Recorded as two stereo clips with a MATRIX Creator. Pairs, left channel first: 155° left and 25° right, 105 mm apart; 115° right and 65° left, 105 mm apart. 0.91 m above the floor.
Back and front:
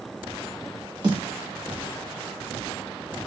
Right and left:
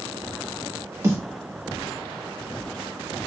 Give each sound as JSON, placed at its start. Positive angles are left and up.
{"t": 1.0, "sound": "a snare drum", "azimuth_deg": 10, "distance_m": 1.3}